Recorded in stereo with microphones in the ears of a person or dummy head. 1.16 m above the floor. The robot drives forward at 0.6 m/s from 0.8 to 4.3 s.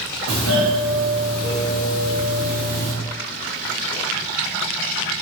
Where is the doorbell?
60° right (ahead or behind), 1.9 m; by 2.9 s 40° right (ahead or behind), 2.5 m.